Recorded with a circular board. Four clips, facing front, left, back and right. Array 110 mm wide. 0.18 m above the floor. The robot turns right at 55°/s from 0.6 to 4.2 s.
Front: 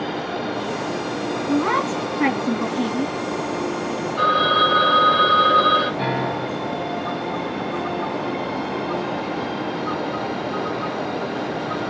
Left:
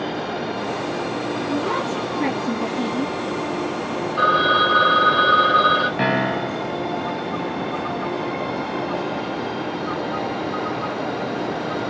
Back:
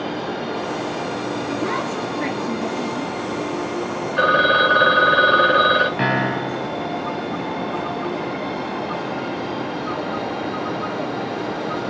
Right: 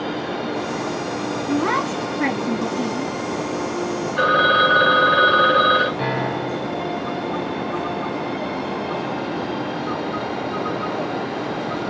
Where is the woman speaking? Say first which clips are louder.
Right 4 dB, front 6 dB; 45° right, 1.3 m; by 3.1 s 45° left, 1.3 m.